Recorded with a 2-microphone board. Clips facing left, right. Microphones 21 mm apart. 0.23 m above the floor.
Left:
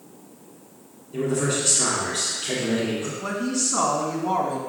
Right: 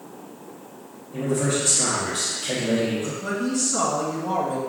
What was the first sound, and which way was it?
A man speaking, 25° left (ahead or behind).